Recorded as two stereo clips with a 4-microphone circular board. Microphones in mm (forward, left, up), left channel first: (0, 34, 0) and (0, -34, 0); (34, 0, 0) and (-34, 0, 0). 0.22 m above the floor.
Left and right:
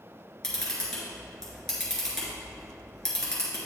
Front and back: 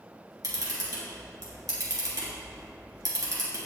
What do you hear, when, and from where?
0.4 s a camera shutter: 170° left, 2.5 m